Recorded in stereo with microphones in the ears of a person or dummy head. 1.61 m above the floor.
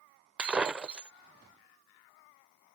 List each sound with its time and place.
0.4 s breaking glass: 10° right (ahead or behind)